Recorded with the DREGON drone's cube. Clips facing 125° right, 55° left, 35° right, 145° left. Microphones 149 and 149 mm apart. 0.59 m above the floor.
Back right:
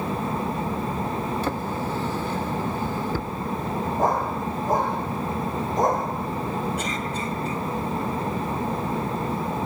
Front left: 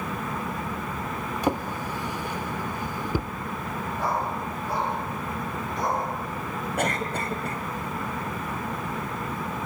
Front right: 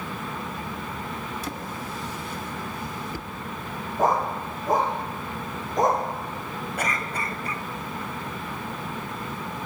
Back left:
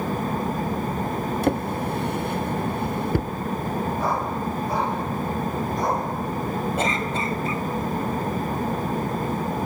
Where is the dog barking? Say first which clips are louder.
Back right 4 dB, front right 1 dB; 80° right, 7 m.